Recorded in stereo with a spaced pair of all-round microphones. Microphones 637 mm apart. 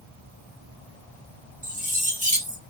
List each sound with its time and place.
1.6 s cutlery clinking: 10° right (ahead or behind), 0.7 m